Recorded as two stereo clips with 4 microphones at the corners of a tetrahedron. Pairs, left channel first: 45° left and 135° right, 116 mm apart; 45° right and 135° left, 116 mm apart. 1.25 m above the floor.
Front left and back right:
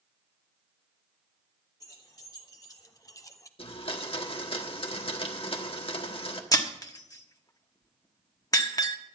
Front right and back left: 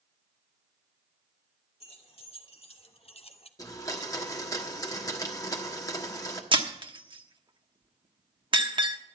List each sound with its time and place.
1.8 s keys jangling: 10° right, 2.5 m; by 3.5 s 15° right, 0.6 m
3.6 s a blender: 10° left, 1.4 m
6.5 s breaking glass: 95° left, 1.1 m